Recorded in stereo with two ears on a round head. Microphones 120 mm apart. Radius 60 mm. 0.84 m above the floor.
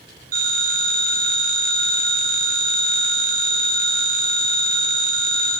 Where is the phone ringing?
75° right (ahead or behind), 5.5 m.